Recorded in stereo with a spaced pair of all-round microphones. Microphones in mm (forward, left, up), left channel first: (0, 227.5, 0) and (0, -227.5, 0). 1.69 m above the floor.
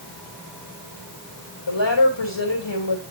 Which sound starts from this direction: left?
A woman speaking, at 1.7 s.